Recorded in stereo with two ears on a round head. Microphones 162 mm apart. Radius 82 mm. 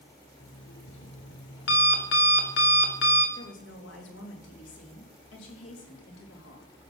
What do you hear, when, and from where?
0.4 s an alarm clock: 70° left (ahead or behind), 3 m
3.4 s a woman speaking: 70° left (ahead or behind), 3.5 m